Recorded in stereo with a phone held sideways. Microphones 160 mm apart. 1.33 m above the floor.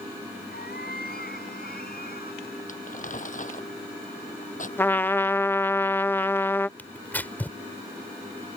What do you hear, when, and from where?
0.5 s a cat meowing: 75° left (ahead or behind); by 2.6 s 70° left (ahead or behind)
2.7 s crumpling: 55° left (ahead or behind)
4.8 s a trumpet: 15° left (ahead or behind)
6.8 s tearing paper: 10° left (ahead or behind)